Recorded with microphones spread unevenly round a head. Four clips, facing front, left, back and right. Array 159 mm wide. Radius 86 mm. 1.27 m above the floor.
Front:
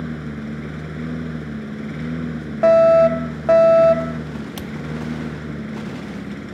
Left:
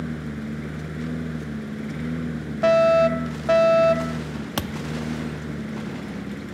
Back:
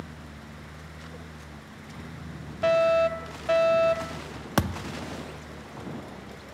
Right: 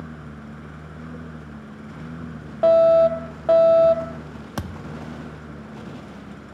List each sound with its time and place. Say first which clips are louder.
0.0 s a lawn mower: left 7 dB, front 14 dB; 20° left
2.6 s a fire alarm: right 3 dB, front 10 dB; 20° right
4.6 s a thud: left 3 dB, back 1 dB; 175° left